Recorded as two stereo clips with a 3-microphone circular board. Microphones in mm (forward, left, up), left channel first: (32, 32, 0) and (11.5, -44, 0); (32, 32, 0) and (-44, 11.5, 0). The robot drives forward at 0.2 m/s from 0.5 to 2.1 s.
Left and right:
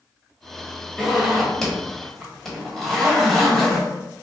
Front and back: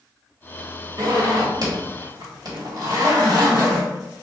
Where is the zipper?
160° left, 1.3 m.